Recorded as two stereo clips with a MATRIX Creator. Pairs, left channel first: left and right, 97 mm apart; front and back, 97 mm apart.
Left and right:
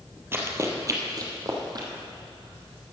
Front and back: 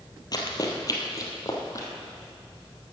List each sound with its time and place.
0.3 s running footsteps: 30° right, 1.7 m; by 1.9 s 50° right, 2.5 m